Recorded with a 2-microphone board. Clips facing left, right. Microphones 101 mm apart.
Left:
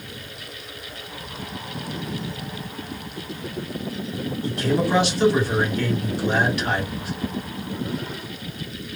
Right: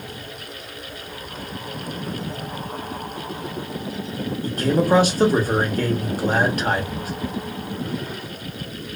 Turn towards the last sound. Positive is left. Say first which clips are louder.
# right 3 dB
turn(degrees=-45)  # may be behind; listen again after turning